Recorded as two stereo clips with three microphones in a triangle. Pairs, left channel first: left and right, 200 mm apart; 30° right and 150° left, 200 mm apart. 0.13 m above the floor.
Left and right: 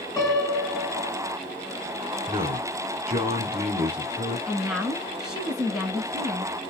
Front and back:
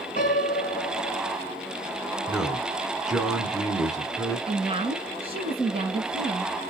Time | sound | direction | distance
0.2 | a piano | 15° left | 1.8 m
2.3 | a man speaking | 125° right | 1.6 m
4.5 | a woman speaking | 175° right | 1.9 m